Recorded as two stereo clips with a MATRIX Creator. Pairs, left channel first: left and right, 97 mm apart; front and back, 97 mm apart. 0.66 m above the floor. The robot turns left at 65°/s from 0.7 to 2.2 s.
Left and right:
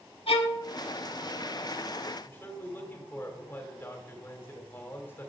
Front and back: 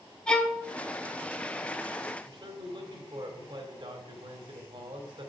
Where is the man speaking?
155° left, 2.5 m.